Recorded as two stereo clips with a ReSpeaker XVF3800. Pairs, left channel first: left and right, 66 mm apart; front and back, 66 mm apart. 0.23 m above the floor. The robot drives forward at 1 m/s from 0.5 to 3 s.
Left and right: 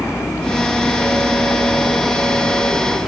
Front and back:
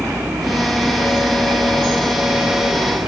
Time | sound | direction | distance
0.0 | a vehicle | 140° left | ?